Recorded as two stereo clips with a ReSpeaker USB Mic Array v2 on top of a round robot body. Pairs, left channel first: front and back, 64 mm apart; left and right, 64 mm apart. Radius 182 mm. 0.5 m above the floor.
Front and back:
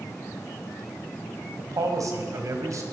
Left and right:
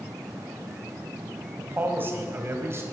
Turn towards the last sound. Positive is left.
turn(degrees=-140)